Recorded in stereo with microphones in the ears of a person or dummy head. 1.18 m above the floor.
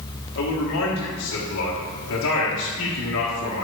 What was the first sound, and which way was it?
A man speaking, 60° left (ahead or behind).